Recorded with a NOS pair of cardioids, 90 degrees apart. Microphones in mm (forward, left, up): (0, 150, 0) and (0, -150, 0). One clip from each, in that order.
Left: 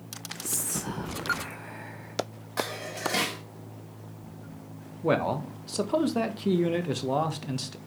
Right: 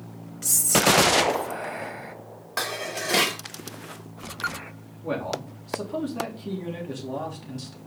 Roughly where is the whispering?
Ahead right.